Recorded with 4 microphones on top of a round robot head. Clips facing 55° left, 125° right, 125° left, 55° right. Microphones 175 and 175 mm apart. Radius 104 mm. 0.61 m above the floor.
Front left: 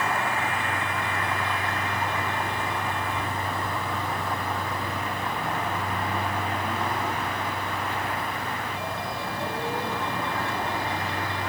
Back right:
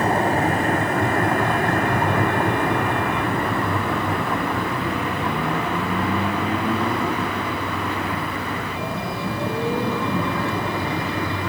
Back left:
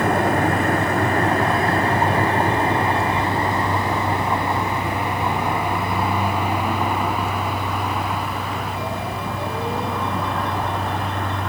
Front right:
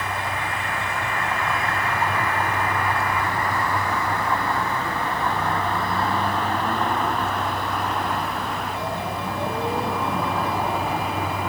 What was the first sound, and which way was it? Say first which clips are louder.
A vehicle: back right 9 dB, back left 11 dB; 175° left.